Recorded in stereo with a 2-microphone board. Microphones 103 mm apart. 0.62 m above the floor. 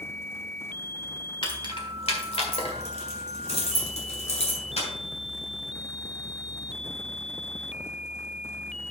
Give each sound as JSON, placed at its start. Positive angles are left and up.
{"t": 1.4, "sound": "keys jangling", "side_deg": 50, "distance_m": 1.6}